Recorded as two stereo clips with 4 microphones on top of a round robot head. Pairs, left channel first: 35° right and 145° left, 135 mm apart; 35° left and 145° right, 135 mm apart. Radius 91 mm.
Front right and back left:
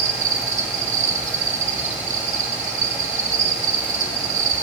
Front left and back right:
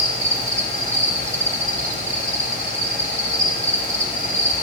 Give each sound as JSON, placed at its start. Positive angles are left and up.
{"t": 0.0, "sound": "an insect", "azimuth_deg": 150, "distance_m": 1.8}